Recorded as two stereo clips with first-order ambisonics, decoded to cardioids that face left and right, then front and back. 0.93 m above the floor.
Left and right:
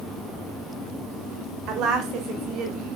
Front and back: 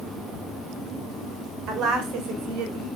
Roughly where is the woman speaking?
Behind right.